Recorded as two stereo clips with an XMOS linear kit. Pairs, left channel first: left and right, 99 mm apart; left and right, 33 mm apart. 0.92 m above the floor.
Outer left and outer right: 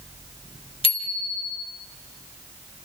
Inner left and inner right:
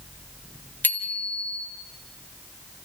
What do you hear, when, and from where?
0.8 s a bicycle bell: 65° left (ahead or behind), 2.5 m